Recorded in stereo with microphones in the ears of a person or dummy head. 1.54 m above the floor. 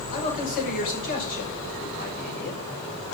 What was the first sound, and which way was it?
A man speaking, 50° left (ahead or behind).